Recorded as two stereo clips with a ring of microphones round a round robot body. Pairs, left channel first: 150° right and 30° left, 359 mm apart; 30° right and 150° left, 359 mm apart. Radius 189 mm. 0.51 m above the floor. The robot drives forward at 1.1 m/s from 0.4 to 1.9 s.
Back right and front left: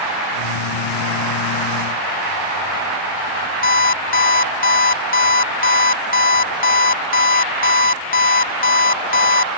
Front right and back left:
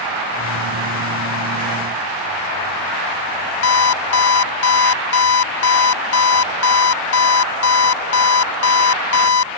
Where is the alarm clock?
85° right.